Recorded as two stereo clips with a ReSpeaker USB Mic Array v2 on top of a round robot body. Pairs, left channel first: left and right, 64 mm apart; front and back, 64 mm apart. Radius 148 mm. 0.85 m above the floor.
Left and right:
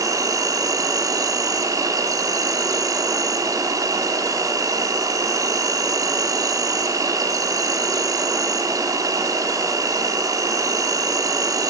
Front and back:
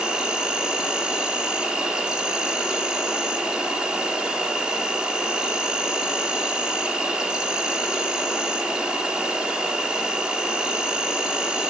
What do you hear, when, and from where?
0.0 s an insect: 105° right, 0.7 m